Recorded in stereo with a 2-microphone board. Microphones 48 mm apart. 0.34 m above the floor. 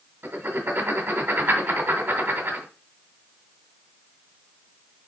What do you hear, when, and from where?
0.2 s writing: 60° right (ahead or behind), 2 m